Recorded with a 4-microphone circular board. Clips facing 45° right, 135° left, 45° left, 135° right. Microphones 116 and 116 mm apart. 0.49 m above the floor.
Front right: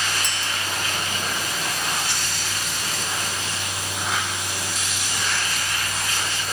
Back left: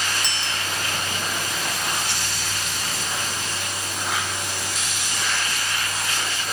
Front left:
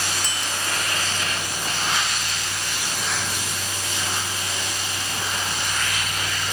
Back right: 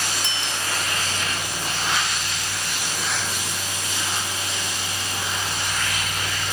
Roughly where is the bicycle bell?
Ahead.